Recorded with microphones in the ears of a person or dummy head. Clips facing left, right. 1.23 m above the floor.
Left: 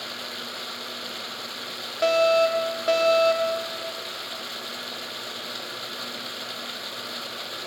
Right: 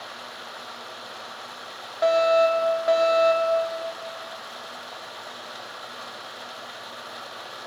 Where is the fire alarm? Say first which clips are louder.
Right 1 dB; 30° left (ahead or behind), 1.3 m.